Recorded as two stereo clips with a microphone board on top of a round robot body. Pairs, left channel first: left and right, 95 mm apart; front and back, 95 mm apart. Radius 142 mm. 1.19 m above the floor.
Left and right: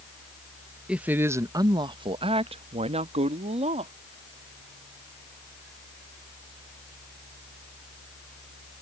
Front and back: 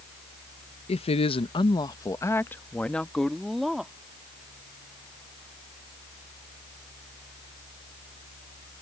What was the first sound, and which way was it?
A woman speaking, 10° right.